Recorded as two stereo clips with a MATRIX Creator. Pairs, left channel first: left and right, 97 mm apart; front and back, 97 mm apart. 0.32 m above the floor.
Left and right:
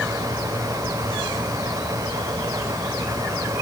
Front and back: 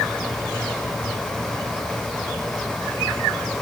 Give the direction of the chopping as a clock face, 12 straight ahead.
No chopping in this recording.